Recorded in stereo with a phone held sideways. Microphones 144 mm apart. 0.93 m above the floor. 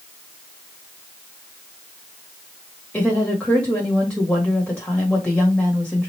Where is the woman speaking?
10° left (ahead or behind), 1.5 m.